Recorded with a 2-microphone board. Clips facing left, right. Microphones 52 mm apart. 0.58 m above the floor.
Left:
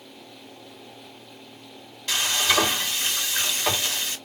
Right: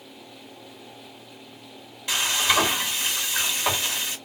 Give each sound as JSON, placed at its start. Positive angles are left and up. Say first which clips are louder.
{"t": 2.1, "sound": "frying", "louder": "right 1 dB", "side_deg": -15, "distance_m": 2.0}